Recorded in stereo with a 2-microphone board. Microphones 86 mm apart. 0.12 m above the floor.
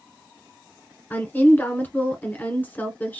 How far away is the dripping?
No dripping in this recording.